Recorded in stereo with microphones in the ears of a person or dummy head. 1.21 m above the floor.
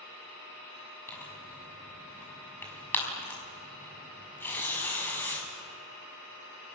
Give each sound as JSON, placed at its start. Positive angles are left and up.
{"t": 1.1, "sound": "tearing paper", "side_deg": 15, "distance_m": 6.0}